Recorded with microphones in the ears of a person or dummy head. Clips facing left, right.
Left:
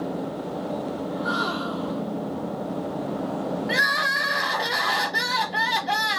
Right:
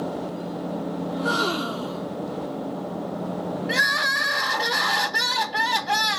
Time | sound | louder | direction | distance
1.1 | a gasp | right 2 dB | 40° right (ahead or behind) | 0.6 m
3.7 | crying | even | centre (ahead or behind) | 1.3 m